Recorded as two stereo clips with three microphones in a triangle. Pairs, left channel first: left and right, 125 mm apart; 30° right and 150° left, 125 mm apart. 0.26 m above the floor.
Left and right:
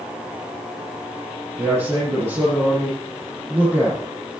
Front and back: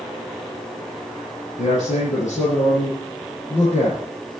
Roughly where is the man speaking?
Ahead.